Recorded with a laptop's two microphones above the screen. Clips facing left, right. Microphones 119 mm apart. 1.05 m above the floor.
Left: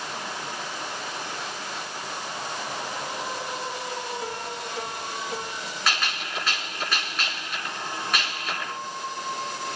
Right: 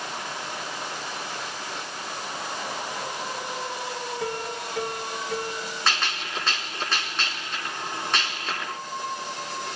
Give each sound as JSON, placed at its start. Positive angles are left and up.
{"t": 4.2, "sound": "a piano", "side_deg": -75, "distance_m": 7.0}
{"t": 5.9, "sound": "a gunshot", "side_deg": -30, "distance_m": 3.5}